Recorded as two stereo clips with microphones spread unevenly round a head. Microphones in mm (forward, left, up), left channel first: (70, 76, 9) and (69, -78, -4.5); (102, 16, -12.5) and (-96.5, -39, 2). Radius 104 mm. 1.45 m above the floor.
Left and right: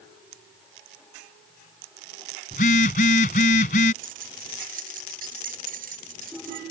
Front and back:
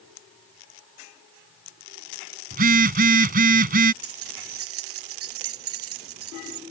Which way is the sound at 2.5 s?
145° left.